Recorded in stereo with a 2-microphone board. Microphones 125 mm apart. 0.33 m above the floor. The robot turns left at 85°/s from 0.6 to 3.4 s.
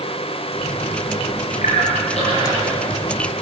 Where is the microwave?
I don't hear a microwave.